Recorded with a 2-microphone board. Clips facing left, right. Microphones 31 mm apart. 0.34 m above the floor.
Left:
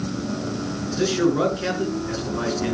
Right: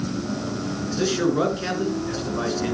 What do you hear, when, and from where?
0.9 s a man speaking: centre (ahead or behind), 5 m